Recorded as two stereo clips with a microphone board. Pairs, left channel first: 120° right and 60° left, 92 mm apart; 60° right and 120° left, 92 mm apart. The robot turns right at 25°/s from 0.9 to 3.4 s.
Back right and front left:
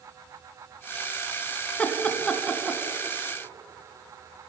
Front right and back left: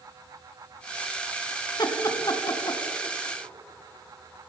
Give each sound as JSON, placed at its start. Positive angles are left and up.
{"t": 1.8, "sound": "laughter", "azimuth_deg": -50, "distance_m": 2.0}